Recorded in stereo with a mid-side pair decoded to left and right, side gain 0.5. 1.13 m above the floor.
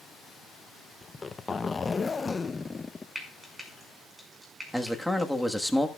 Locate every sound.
1.0 s a zipper: 20° left, 0.7 m
3.1 s frying: 15° right, 5.5 m
4.7 s a man speaking: 5° right, 1.4 m